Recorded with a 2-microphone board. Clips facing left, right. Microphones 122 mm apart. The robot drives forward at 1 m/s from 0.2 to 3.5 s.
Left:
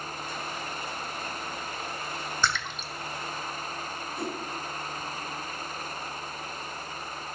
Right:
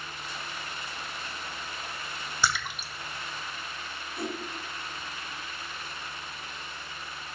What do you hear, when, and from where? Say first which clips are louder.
2.4 s a splash: right 2 dB; 5° right (ahead or behind), 1.1 m; by 2.9 s 10° right (ahead or behind), 0.8 m
4.2 s a whoosh: even; 5° right (ahead or behind), 3.5 m